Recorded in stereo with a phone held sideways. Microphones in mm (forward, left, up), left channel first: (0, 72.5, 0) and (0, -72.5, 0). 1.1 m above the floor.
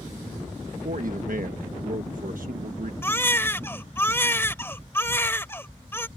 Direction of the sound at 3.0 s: 15° left (ahead or behind).